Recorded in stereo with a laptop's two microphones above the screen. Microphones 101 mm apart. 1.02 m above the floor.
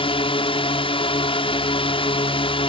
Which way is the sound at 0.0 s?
65° left (ahead or behind).